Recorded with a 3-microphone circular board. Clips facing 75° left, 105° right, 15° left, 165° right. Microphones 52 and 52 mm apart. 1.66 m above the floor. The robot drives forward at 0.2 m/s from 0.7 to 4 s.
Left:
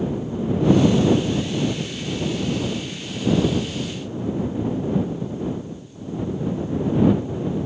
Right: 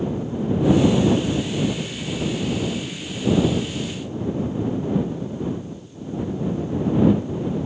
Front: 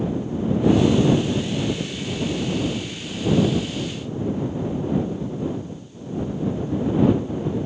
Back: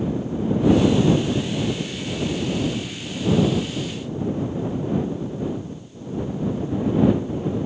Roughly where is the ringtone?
I don't hear a ringtone.